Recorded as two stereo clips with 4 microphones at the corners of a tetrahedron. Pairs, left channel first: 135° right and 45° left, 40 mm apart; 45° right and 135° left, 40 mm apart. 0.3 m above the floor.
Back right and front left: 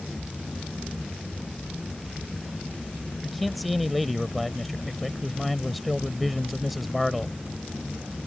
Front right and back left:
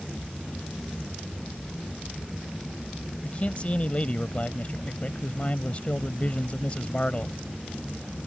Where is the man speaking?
45° right.